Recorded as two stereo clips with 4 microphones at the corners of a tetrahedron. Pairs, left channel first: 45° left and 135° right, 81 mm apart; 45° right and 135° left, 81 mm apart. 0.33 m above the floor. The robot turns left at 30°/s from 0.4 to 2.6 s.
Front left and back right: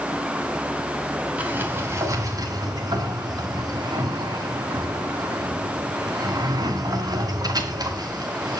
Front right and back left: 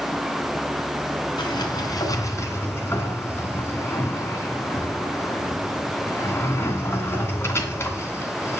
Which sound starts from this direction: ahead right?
A sliding door, at 1.4 s.